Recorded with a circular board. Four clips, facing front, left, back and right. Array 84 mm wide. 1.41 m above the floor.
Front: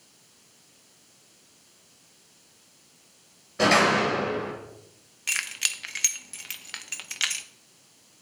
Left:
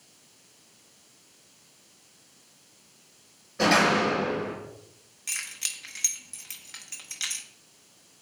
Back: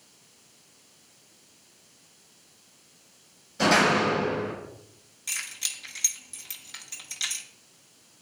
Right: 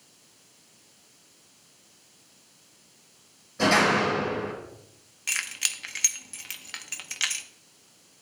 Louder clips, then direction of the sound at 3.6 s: Even, front 1 dB; 20° left.